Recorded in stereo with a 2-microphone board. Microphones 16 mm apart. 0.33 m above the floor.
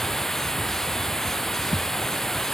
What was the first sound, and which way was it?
Running water, 30° left (ahead or behind).